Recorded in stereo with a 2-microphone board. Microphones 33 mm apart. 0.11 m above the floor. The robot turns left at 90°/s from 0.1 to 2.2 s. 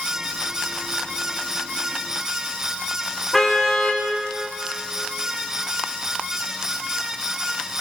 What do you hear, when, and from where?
3.3 s a car horn: 10° left (ahead or behind), 5.5 m